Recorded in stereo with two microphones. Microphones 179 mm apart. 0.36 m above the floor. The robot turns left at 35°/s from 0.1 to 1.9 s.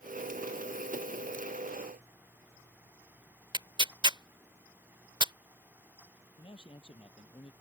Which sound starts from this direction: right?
Tearing paper, at 3.5 s.